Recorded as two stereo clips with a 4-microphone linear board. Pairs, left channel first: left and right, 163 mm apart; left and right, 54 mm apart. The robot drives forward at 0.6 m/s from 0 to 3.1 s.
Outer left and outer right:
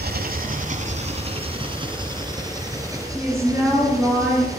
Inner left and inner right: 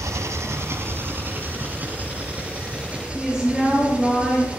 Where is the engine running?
75° right (ahead or behind), 0.8 m; by 4.6 s 20° right (ahead or behind), 2 m.